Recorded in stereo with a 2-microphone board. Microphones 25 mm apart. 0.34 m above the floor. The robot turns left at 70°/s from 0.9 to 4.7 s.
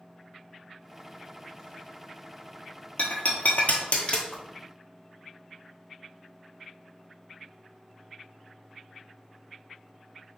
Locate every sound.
3.0 s breaking glass: 50° left (ahead or behind), 0.9 m; by 4.2 s 45° left (ahead or behind), 0.9 m
4.3 s a whoosh: 30° left (ahead or behind), 1.6 m